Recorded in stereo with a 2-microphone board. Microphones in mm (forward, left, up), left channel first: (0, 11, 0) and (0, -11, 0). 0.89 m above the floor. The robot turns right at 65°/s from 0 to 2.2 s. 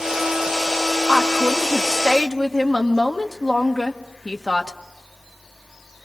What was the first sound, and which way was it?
A woman speaking, 115° left.